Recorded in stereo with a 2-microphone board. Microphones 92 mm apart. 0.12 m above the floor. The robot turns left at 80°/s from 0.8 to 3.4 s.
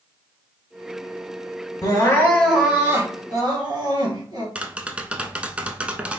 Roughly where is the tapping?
Centre.